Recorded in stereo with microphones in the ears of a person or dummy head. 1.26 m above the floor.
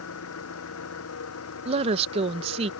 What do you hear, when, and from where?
0.0 s an engine running: 70° left (ahead or behind)
1.6 s a woman speaking: 35° right (ahead or behind)